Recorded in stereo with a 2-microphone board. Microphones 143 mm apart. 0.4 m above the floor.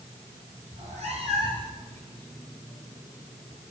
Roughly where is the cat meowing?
Right.